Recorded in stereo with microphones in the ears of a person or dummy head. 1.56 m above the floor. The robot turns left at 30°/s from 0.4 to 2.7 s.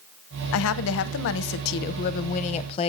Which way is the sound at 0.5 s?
100° left.